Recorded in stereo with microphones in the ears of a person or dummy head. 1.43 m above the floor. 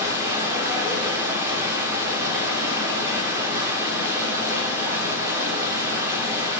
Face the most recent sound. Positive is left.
turn(degrees=-15)  # may be behind; listen again after turning